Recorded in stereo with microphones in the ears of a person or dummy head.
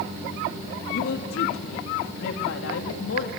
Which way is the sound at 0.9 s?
85° left.